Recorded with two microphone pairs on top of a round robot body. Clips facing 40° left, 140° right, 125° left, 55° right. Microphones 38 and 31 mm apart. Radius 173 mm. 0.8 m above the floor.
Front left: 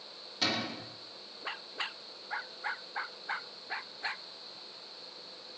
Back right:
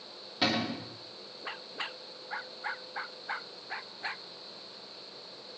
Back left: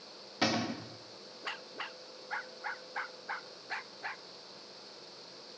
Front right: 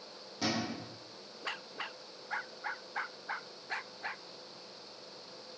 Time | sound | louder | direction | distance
0.4 | a cupboard door | back right 3 dB, back left 3 dB | 155° left | 1.4 m